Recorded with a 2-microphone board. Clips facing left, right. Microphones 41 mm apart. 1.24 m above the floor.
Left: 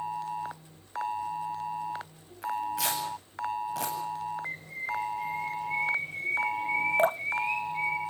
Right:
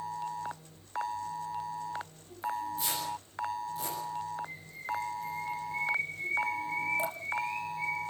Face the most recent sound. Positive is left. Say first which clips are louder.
# left 9 dB
turn(degrees=45)  # may be behind; listen again after turning